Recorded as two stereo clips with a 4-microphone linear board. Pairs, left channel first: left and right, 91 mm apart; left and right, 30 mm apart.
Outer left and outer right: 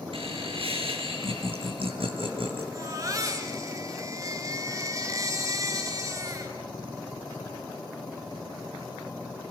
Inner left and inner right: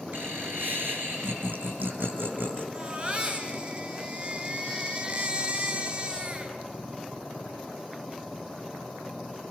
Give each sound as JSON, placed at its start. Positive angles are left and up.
{"t": 0.1, "sound": "laughter", "side_deg": -75, "distance_m": 7.0}
{"t": 2.7, "sound": "a baby crying", "side_deg": -35, "distance_m": 3.0}